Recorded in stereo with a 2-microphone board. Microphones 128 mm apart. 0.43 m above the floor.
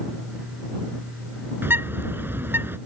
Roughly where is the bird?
Centre.